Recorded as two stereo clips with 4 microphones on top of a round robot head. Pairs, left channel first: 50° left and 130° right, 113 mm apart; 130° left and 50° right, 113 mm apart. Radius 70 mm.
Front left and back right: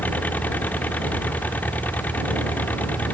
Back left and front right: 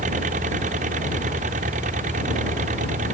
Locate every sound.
0.0 s an engine running: 30° right